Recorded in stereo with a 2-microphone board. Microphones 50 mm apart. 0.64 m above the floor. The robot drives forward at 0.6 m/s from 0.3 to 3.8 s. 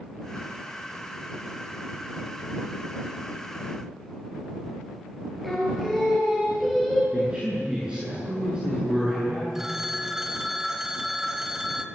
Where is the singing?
Centre (ahead or behind), 7.5 m.